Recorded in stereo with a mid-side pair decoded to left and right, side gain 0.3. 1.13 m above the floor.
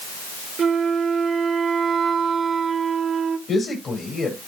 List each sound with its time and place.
0.6 s a flute: 65° right, 0.8 m
3.5 s a man speaking: 60° left, 4 m